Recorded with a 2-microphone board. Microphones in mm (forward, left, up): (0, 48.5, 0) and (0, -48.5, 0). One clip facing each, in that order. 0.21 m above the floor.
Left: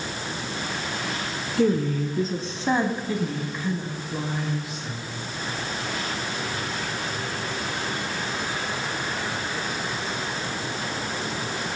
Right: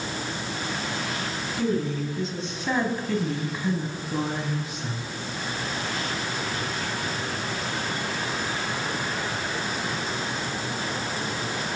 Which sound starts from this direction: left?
A woman speaking, at 1.6 s.